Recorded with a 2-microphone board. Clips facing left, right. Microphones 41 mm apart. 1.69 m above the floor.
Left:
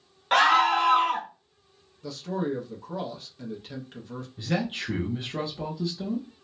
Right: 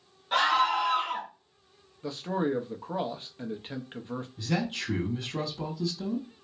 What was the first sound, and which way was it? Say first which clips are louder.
A scream: left 5 dB; 75° left (ahead or behind).